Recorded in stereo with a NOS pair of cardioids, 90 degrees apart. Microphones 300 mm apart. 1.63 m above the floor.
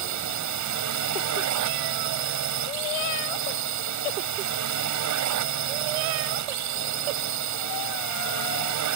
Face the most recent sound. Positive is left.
turn(degrees=-70)